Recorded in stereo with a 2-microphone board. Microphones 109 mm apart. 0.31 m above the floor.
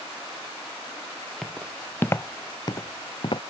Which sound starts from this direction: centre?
Footsteps, at 1.4 s.